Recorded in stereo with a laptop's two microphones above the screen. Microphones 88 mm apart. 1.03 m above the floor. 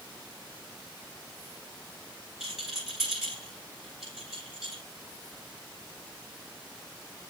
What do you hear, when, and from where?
2.4 s a rattle: 5° right (ahead or behind), 3.5 m